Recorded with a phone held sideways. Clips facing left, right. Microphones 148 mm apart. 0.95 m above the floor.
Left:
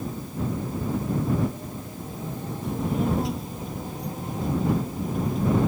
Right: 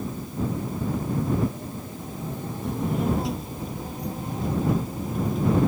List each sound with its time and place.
2.6 s a child speaking: centre (ahead or behind)